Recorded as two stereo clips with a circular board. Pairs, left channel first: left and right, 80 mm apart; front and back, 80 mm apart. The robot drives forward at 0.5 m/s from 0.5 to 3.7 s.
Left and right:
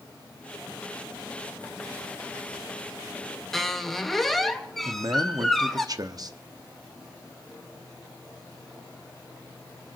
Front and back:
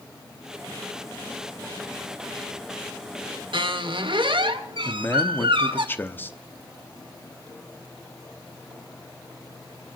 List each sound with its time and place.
3.5 s a squeak: 175° left, 1.6 m
4.8 s a man speaking: 65° right, 1.0 m